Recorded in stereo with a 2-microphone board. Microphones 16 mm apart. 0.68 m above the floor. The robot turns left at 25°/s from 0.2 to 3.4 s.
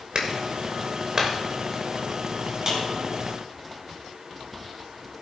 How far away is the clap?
About 2.5 m.